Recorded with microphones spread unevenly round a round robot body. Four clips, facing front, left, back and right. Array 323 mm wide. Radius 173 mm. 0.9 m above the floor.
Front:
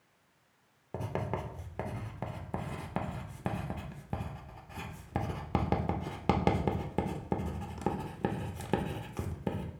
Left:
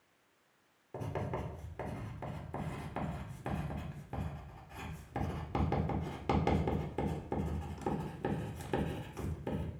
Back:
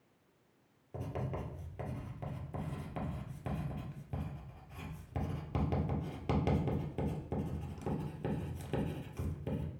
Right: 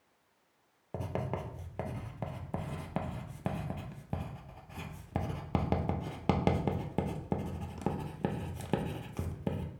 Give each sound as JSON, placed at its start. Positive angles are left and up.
{"t": 0.9, "sound": "writing", "azimuth_deg": -30, "distance_m": 0.7}